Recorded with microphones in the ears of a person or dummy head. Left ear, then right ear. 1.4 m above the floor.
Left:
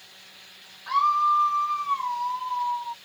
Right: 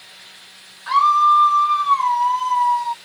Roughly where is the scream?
Right.